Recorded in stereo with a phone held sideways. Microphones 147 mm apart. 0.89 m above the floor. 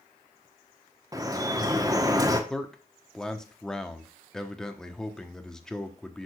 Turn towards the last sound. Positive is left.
turn(degrees=5)  # may be behind; listen again after turning